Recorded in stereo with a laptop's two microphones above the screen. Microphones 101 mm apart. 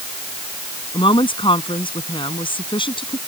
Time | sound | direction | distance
0.9 | a woman speaking | 55° left (ahead or behind) | ?